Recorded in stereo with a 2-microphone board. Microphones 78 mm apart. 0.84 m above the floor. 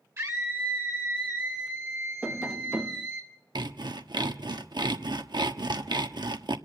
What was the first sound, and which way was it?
A scream, 40° right (ahead or behind).